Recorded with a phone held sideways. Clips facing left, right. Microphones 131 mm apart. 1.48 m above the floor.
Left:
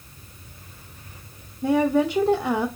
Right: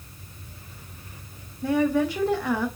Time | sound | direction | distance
1.6 | a woman speaking | 20° left (ahead or behind) | 0.7 m